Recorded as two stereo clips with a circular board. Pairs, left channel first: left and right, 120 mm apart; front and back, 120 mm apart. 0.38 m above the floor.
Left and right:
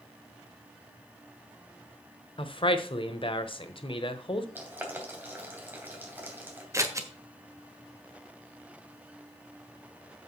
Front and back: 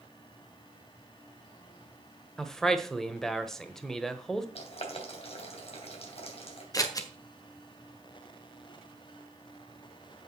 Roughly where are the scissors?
Ahead right.